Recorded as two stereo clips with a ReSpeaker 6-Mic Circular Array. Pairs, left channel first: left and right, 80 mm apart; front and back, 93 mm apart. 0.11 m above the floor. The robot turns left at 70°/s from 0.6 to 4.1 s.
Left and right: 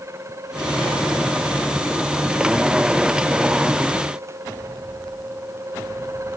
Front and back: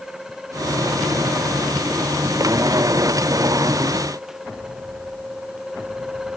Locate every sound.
Only background noise.